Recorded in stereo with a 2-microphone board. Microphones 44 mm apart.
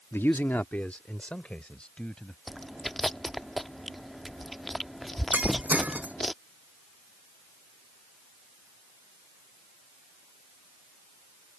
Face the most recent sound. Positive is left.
turn(degrees=-35)  # may be behind; listen again after turning